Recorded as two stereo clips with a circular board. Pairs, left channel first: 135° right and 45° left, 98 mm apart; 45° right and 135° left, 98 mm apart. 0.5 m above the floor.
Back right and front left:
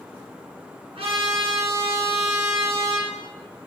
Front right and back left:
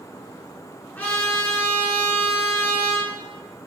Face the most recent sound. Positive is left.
turn(degrees=25)